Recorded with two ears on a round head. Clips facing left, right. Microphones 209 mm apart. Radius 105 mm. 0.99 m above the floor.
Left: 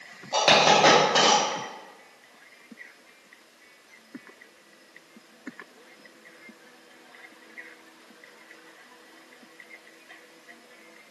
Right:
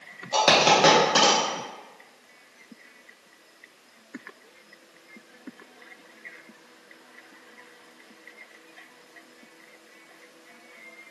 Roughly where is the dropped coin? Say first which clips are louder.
Even; centre.